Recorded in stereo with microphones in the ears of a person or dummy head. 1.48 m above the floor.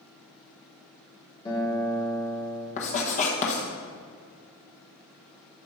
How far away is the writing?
About 1.1 m.